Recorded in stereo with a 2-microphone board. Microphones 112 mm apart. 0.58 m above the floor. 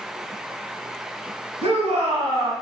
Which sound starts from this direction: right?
A shout, at 1.6 s.